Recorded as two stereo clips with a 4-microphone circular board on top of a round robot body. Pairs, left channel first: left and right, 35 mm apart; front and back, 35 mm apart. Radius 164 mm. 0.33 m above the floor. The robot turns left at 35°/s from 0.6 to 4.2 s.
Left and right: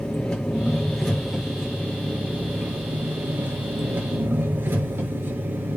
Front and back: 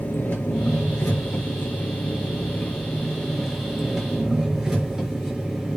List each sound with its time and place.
0.0 s an engine running: 20° left, 5.5 m; by 5.8 s 105° right, 5.5 m